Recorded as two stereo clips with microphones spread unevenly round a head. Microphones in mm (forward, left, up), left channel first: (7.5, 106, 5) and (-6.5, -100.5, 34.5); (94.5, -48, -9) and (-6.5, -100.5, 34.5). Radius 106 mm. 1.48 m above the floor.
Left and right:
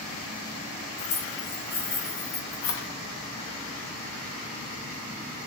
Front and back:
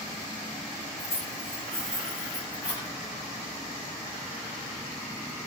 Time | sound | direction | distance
1.0 | keys jangling | 95° left | 1.8 m